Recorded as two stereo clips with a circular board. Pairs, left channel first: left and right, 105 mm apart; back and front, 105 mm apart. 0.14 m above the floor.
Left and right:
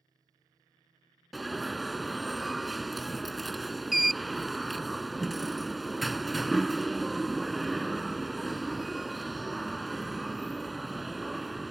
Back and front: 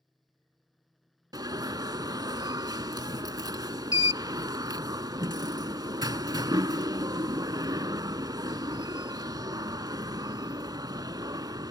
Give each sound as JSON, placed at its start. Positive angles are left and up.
{"t": 1.3, "sound": "an alarm", "azimuth_deg": 0}